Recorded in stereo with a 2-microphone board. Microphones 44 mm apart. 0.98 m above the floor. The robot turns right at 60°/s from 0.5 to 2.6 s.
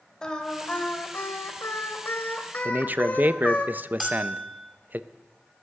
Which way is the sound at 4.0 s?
5° right (ahead or behind).